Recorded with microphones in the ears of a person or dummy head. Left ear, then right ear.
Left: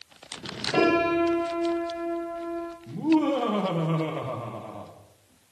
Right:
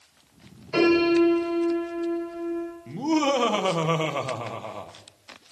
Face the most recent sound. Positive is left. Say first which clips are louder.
# even
turn(degrees=-60)  # may be behind; listen again after turning